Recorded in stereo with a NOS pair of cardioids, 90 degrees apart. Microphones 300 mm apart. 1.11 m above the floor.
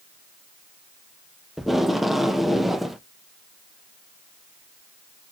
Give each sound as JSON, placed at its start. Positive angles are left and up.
{"t": 1.6, "sound": "tape being pulled", "azimuth_deg": 0, "distance_m": 0.6}